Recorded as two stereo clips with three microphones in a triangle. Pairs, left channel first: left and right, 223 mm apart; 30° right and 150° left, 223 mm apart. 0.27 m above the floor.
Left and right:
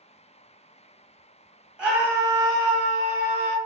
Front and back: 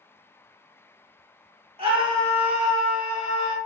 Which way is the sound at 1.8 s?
170° right.